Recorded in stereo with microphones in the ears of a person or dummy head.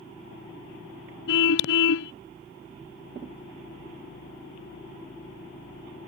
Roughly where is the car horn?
Left.